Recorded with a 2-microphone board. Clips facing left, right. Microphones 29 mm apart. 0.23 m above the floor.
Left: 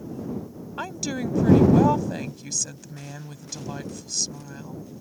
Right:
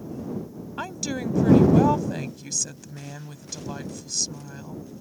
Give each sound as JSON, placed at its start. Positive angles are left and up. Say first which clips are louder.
{"t": 0.8, "sound": "a woman speaking", "louder": "left 1 dB", "side_deg": 0}